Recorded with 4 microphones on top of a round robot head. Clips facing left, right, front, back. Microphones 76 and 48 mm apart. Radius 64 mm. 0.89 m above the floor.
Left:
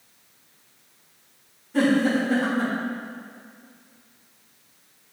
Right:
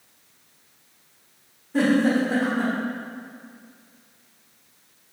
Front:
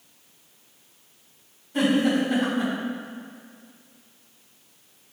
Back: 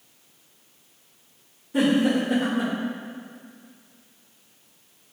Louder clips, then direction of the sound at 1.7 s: Right 1 dB, back 1 dB; 175° right.